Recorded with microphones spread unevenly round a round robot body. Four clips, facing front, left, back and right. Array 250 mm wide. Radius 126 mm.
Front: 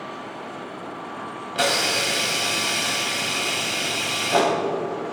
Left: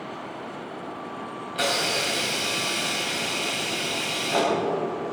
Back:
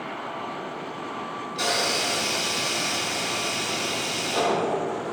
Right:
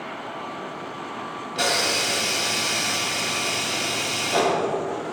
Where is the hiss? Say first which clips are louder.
Right 1 dB, front 4 dB; 10° right, 3.5 m.